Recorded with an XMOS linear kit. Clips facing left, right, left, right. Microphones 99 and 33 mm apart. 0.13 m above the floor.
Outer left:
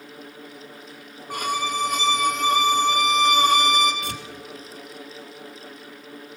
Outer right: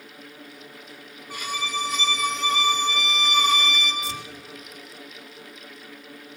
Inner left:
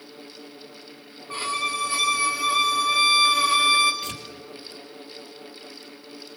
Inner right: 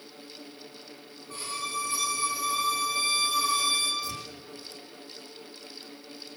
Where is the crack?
I don't hear a crack.